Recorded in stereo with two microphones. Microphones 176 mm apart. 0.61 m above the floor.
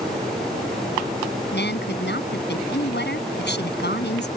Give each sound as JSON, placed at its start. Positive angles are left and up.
{"t": 1.5, "sound": "a woman speaking", "side_deg": 80}